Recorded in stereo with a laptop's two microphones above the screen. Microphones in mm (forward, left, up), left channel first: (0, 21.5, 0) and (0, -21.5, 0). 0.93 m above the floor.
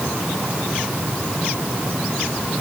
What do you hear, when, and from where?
Only background noise.